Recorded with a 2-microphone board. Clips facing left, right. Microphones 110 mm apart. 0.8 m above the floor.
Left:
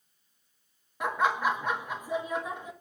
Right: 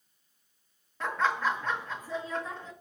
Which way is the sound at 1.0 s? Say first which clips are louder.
Left 2 dB; 15° left (ahead or behind).